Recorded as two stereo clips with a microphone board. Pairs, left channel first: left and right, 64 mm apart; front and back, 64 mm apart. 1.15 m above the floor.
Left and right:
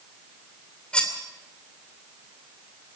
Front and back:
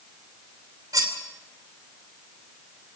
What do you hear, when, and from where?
0.9 s cutlery clinking: 165° left, 2.5 m